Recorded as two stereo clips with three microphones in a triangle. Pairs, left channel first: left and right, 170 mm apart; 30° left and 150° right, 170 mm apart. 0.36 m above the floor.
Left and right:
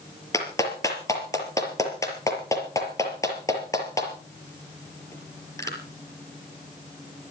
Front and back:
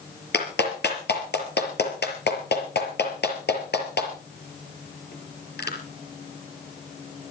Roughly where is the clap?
Ahead.